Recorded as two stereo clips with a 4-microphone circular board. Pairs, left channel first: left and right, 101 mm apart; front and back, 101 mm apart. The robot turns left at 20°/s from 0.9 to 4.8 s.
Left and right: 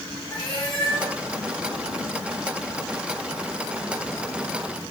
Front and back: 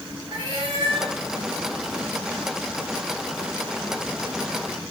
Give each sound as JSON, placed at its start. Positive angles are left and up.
{"t": 0.3, "sound": "a cat meowing", "azimuth_deg": 135, "distance_m": 4.0}